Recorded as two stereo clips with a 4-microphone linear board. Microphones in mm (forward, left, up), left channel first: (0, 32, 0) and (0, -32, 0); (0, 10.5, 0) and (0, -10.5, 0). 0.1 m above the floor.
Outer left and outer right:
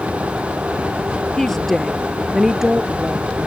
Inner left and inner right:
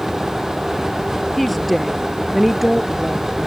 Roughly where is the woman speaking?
Centre.